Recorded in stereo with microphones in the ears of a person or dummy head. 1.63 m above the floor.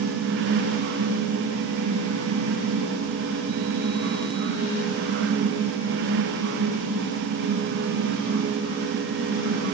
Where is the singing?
I don't hear singing.